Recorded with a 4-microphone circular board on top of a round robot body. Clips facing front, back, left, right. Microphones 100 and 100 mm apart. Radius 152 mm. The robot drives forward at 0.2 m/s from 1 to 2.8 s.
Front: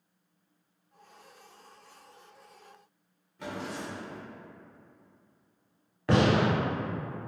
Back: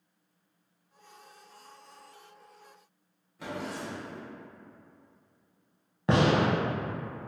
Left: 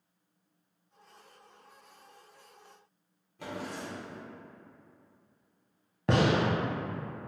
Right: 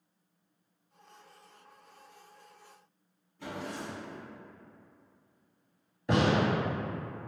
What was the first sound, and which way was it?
A drawer, 90° left.